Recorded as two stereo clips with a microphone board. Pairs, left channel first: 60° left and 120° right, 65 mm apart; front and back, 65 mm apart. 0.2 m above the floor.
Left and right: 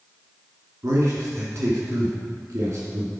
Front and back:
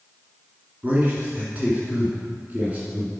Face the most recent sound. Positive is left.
turn(degrees=-120)